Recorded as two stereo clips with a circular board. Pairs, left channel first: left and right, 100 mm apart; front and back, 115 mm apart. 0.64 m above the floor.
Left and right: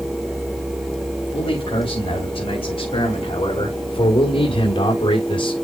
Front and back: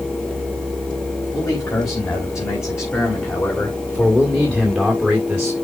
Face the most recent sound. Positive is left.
turn(degrees=100)